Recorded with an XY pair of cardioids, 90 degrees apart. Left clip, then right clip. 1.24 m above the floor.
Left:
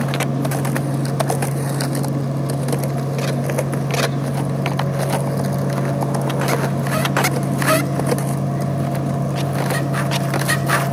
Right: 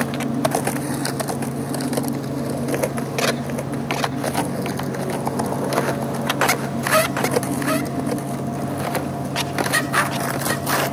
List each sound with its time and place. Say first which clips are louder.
0.0 s a fan: even; 60° left, 4.5 m